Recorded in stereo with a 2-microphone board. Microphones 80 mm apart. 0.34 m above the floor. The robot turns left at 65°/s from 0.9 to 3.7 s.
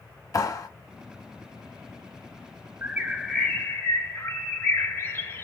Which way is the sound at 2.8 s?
155° right.